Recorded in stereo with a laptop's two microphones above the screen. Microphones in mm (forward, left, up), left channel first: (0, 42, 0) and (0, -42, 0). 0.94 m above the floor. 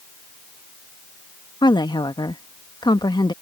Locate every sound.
1.6 s a woman speaking: 65° left (ahead or behind)